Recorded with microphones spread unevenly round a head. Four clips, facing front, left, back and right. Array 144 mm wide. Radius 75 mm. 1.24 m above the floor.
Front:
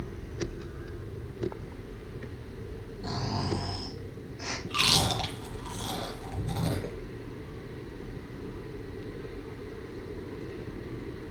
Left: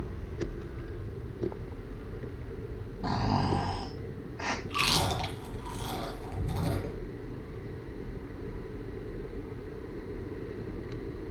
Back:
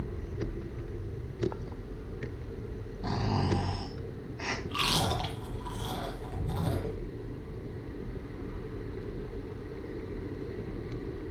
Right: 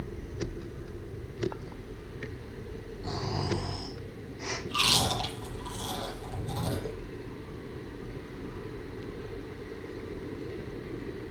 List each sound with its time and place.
3.0 s snoring: 95° left, 2 m
4.7 s chewing: 5° left, 3.5 m